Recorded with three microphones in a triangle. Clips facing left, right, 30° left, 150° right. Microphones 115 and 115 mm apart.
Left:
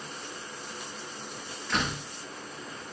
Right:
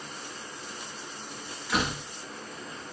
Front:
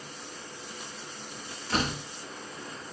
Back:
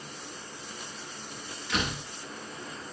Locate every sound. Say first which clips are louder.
1.7 s a door slam: right 2 dB, front 2 dB; 10° right, 0.6 m